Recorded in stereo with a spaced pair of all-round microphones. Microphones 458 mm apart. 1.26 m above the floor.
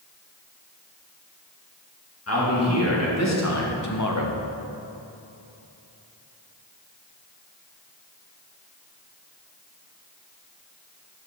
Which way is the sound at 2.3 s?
30° left (ahead or behind).